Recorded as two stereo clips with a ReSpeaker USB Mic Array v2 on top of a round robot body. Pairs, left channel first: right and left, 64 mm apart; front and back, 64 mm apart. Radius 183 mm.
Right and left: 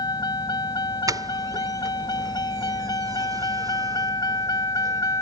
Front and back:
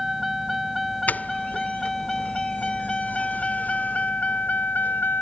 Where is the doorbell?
65° left.